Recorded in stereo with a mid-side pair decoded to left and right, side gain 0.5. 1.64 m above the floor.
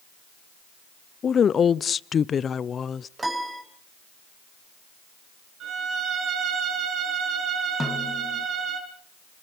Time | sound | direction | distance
1.2 | a woman speaking | 45° left | 0.6 m
3.2 | a piano | 20° right | 4 m
5.6 | a violin | 60° right | 6 m
7.8 | a snare drum | 15° left | 1.9 m